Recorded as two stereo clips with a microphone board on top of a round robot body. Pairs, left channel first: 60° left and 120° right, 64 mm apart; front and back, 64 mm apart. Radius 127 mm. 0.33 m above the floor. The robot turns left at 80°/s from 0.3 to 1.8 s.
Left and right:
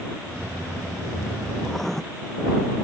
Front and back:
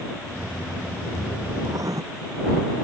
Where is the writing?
155° left; by 2.0 s 145° left.